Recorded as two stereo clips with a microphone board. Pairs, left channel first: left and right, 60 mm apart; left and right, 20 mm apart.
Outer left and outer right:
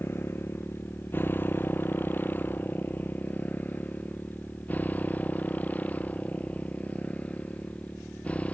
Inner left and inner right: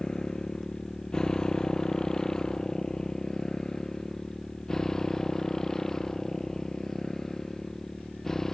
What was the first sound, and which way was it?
A motorcycle, 40° left (ahead or behind).